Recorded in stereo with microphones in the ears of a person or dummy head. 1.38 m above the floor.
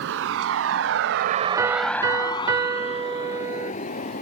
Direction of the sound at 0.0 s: 70° right (ahead or behind).